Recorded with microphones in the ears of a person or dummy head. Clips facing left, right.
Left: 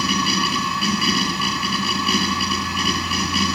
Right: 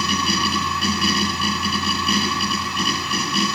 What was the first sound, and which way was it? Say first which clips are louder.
A machine running: left 1 dB; centre (ahead or behind).